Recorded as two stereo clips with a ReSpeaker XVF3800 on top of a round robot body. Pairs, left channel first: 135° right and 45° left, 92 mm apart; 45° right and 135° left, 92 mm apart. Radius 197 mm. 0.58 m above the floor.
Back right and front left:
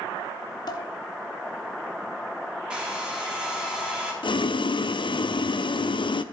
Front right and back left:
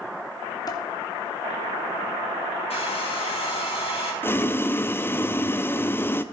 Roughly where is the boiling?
Right.